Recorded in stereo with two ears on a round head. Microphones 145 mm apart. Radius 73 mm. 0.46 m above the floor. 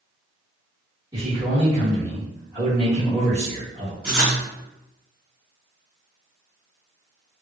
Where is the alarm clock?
No alarm clock in this recording.